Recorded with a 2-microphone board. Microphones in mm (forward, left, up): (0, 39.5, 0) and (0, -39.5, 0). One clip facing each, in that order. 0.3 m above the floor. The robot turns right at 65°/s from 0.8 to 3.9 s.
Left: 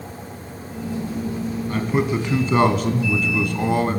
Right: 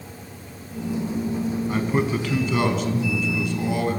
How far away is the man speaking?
About 3 m.